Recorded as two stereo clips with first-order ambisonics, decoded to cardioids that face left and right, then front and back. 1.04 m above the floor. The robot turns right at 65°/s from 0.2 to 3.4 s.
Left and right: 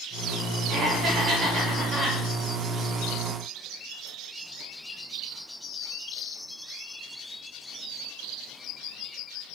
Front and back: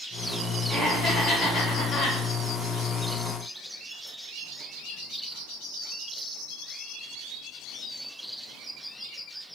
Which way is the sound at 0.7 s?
95° right.